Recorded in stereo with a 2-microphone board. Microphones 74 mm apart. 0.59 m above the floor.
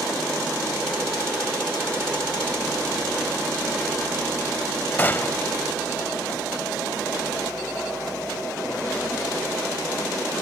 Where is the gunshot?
25° left (ahead or behind), 0.6 m.